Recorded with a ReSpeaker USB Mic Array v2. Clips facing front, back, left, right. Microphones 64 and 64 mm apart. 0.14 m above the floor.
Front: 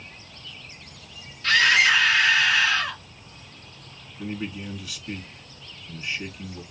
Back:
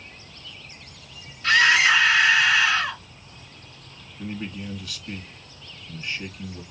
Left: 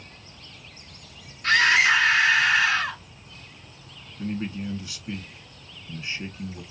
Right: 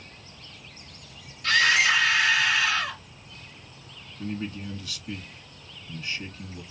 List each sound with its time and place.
1.4 s a scream: 115° left, 2 m
4.2 s a man speaking: 75° left, 1.2 m